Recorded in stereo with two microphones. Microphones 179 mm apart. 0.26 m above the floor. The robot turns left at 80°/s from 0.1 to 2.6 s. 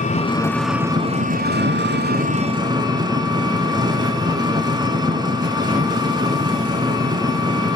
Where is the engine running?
45° left, 0.9 m; by 7.8 s 155° right, 0.9 m.